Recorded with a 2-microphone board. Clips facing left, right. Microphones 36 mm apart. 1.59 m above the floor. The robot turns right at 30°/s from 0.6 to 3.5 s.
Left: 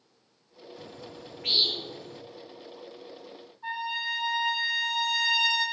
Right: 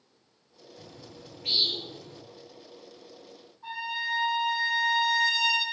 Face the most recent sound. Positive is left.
turn(degrees=25)  # may be behind; listen again after turning